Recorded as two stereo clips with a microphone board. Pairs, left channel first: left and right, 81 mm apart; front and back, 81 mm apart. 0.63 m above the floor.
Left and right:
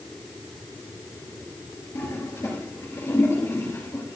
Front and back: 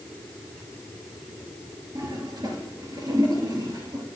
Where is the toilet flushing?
145° left, 3 m.